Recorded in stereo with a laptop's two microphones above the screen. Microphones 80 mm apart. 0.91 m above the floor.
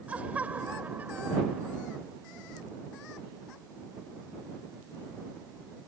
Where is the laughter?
15° right (ahead or behind); by 2.0 s 25° right (ahead or behind).